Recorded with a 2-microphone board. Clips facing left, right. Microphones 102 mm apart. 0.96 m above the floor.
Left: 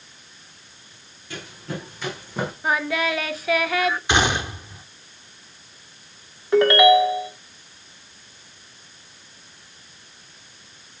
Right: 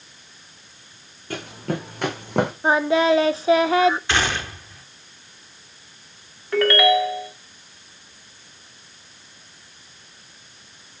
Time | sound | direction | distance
1.3 | running footsteps | 50° right (ahead or behind) | 4 m
2.6 | singing | 25° right (ahead or behind) | 0.7 m
4.1 | a gunshot | 15° left (ahead or behind) | 0.8 m
6.5 | a ringtone | 20° left (ahead or behind) | 1.3 m